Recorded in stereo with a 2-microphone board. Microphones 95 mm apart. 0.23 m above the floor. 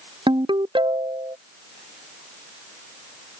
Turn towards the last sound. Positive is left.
turn(degrees=-60)  # may be behind; listen again after turning